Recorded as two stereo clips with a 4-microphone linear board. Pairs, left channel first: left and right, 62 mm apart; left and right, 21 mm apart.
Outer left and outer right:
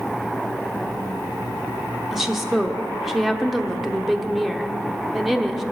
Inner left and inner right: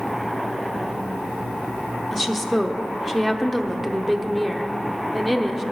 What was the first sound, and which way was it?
A woman speaking, 5° right (ahead or behind).